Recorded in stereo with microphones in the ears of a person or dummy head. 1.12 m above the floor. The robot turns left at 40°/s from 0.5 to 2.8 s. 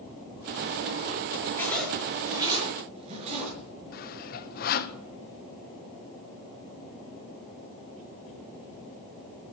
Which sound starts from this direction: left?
Sawing, at 3.9 s.